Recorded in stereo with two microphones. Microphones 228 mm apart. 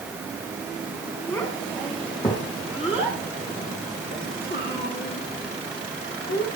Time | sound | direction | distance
1.3 | a child speaking | 15° left (ahead or behind) | 4.5 m